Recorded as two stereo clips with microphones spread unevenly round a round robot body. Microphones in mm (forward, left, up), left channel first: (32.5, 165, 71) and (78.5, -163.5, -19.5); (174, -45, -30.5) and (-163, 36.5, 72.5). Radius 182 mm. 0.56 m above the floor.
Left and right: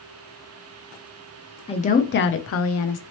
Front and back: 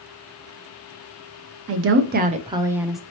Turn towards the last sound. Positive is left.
turn(degrees=55)